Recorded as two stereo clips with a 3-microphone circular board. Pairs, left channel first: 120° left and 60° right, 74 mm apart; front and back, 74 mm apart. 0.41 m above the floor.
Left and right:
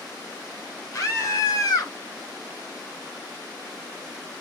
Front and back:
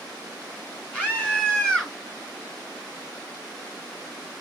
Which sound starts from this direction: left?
A scream, at 0.9 s.